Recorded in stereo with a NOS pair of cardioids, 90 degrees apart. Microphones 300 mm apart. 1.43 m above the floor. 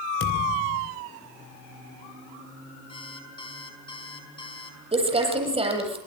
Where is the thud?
45° left, 4 m.